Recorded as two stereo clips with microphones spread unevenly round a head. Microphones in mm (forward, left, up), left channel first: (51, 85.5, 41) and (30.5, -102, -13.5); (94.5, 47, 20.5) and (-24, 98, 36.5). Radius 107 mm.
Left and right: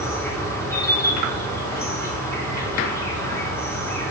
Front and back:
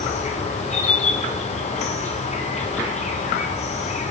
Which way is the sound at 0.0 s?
5° left.